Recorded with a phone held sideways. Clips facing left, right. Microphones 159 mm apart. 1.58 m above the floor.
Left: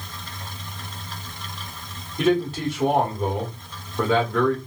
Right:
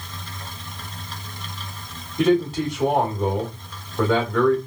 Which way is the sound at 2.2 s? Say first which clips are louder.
Right 2 dB; centre (ahead or behind).